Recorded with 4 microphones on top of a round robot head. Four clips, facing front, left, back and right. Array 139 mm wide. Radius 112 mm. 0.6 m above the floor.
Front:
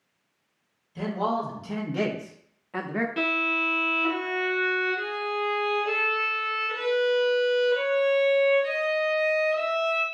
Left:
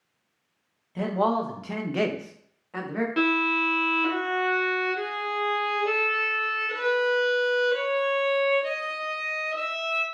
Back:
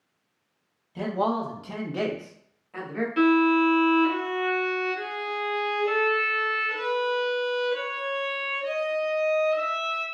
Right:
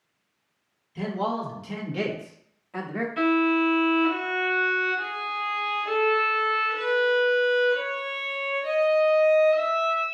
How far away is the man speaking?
About 1.2 m.